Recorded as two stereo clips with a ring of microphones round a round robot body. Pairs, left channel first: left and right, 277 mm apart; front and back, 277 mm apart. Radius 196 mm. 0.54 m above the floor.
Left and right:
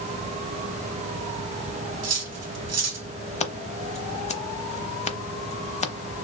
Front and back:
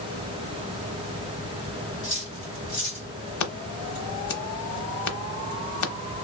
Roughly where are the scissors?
Ahead.